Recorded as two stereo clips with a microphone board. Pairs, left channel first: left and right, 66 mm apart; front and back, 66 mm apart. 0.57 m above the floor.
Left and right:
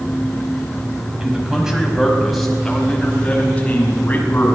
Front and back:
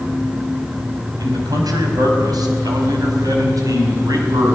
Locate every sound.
1.2 s a man speaking: 165° right, 4.5 m; by 4.5 s 150° left, 6 m